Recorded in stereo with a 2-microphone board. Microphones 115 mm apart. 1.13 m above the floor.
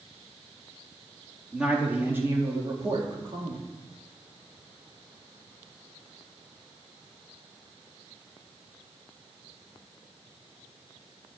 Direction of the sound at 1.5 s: 5° right (ahead or behind).